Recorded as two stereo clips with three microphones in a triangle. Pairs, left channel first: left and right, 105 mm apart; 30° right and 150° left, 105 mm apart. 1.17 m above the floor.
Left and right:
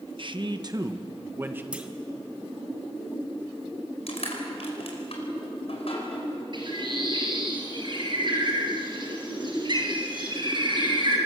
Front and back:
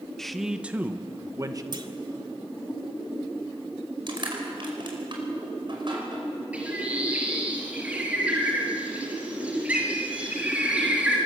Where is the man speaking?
115° right, 1.3 m; by 1.6 s 160° right, 1.6 m.